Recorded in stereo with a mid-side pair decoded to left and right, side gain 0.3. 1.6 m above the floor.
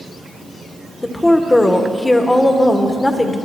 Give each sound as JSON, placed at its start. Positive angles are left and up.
{"t": 1.0, "sound": "a woman speaking", "azimuth_deg": 25, "distance_m": 1.7}